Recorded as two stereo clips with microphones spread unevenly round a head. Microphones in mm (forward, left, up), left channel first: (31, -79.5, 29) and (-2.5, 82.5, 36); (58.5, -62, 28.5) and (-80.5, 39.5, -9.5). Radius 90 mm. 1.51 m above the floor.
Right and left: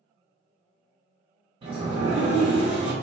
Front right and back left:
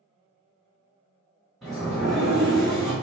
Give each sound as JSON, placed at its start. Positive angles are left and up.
{"t": 1.6, "sound": "a sliding door", "azimuth_deg": 45, "distance_m": 1.0}